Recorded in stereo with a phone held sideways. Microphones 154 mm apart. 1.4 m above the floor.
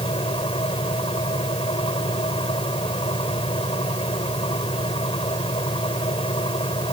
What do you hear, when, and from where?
0.0 s a fan: 35° left (ahead or behind)